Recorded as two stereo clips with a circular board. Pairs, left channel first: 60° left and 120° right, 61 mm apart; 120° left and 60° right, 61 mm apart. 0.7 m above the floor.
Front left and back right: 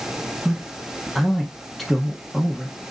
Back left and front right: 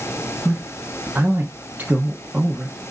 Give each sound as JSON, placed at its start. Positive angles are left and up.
{"t": 0.5, "sound": "a man speaking", "azimuth_deg": -25, "distance_m": 0.9}